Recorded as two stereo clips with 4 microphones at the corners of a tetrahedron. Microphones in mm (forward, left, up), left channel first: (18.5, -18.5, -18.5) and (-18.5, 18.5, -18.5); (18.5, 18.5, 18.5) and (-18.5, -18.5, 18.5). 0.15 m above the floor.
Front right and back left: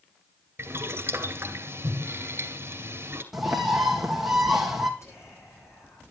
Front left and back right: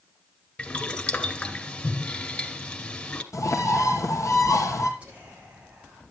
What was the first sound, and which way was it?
Boiling, 105° left.